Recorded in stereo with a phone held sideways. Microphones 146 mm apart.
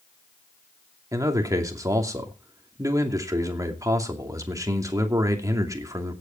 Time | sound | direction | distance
1.1 | a man speaking | 25° right (ahead or behind) | 2.5 m